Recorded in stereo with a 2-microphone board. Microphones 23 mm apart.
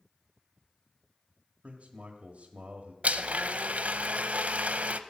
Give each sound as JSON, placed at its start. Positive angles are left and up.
{"t": 1.6, "sound": "a man speaking", "side_deg": -50, "distance_m": 1.4}
{"t": 3.0, "sound": "a blender", "side_deg": -70, "distance_m": 0.6}